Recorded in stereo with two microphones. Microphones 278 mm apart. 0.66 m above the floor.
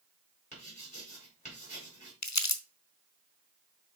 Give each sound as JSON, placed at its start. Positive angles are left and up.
{"t": 0.5, "sound": "writing", "side_deg": 25, "distance_m": 4.5}
{"t": 2.2, "sound": "crumpling", "side_deg": 75, "distance_m": 0.8}